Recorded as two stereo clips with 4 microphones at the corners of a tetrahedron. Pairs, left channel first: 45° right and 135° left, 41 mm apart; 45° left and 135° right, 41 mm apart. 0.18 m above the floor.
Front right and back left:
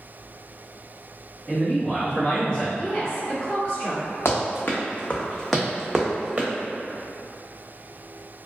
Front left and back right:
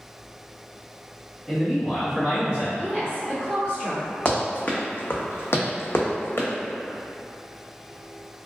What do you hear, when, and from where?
1.5 s a man speaking: 30° right, 1.1 m; by 2.7 s 95° right, 1.4 m
2.8 s a woman speaking: 80° right, 1.7 m
4.2 s running footsteps: 20° right, 0.8 m; by 6.5 s 80° left, 0.8 m